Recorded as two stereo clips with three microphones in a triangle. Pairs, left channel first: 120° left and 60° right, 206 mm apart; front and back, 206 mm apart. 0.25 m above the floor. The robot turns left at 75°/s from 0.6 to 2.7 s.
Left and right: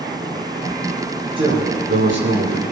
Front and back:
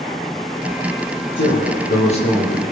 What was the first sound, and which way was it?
A man speaking, 5° left.